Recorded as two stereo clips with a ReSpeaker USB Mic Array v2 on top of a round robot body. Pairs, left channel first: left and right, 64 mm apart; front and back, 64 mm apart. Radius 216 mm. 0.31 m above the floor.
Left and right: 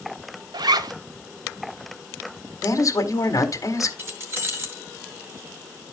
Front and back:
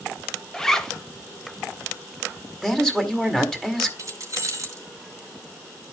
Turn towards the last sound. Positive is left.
turn(degrees=-140)